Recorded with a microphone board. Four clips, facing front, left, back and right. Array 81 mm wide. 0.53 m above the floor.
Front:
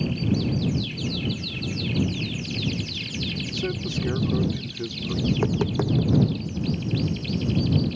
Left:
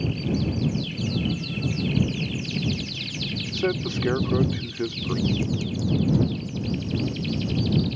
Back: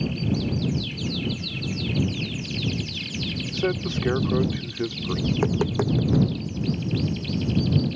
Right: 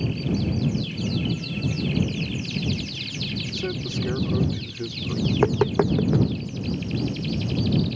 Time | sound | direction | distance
3.5 | a man speaking | 135° left | ?
5.3 | tapping | 95° right | ?